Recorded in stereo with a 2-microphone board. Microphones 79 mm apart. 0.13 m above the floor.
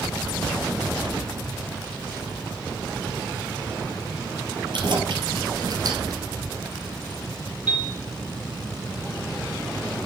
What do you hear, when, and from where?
4.7 s keys jangling: 70° right (ahead or behind), 2.5 m; by 6.2 s 45° right (ahead or behind), 1.5 m
7.7 s a piano: 15° right (ahead or behind), 3.5 m